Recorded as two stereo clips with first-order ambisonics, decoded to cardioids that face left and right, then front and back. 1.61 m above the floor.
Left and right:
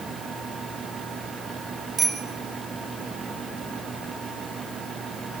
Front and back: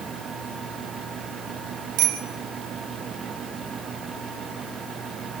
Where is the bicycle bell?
160° right, 4.5 m.